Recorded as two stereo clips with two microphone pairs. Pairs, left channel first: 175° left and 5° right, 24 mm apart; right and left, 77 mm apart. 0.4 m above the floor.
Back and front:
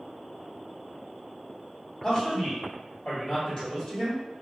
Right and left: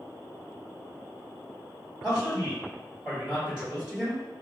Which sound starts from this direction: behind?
A man speaking, at 2.0 s.